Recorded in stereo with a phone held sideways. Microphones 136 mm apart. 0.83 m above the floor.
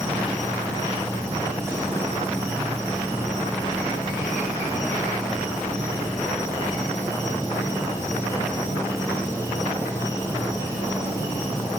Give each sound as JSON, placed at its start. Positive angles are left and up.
{"t": 0.0, "sound": "an insect", "side_deg": -25, "distance_m": 2.5}